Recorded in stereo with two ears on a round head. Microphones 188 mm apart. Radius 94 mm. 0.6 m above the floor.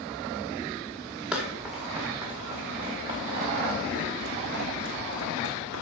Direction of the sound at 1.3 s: 5° right (ahead or behind).